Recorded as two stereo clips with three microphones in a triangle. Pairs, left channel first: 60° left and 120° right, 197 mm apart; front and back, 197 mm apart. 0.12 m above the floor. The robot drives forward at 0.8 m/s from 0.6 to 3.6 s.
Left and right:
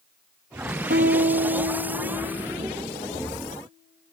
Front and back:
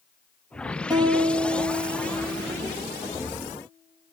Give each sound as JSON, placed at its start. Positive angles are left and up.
{"t": 0.9, "sound": "a guitar", "azimuth_deg": -115, "distance_m": 2.5}